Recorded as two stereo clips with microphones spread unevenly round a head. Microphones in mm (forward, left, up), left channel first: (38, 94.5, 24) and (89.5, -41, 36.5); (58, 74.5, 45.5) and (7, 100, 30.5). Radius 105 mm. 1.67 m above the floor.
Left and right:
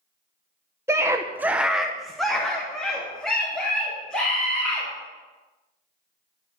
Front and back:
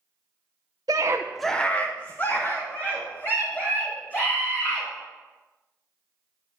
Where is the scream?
140° right, 0.9 m; by 4.9 s 25° left, 5.5 m.